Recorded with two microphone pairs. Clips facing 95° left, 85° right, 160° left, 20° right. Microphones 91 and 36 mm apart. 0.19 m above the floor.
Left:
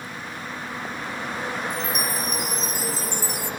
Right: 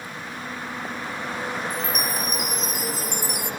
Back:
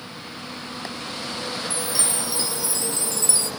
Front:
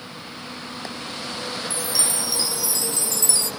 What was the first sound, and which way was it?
A chime, 120° left.